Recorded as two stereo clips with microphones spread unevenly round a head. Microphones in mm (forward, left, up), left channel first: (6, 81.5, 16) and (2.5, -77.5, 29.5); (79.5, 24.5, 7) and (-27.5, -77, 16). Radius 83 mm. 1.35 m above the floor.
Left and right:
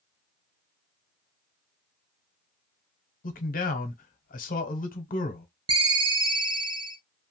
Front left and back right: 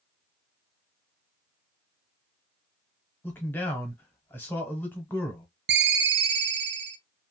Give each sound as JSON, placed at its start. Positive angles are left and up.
{"t": 3.2, "sound": "a man speaking", "azimuth_deg": 120, "distance_m": 0.9}
{"t": 5.7, "sound": "a ringtone", "azimuth_deg": -150, "distance_m": 0.5}